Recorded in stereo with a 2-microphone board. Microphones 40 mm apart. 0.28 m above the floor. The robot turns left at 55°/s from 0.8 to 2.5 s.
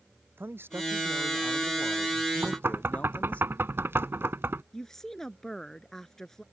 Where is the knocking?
70° right (ahead or behind); by 4.6 s 65° right (ahead or behind).